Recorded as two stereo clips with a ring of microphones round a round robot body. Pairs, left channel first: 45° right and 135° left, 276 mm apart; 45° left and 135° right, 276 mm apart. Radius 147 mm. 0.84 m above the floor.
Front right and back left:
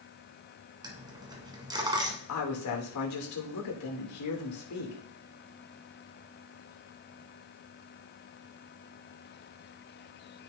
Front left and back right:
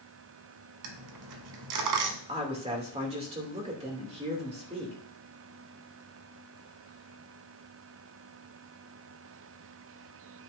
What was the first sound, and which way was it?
A dropped coin, 150° right.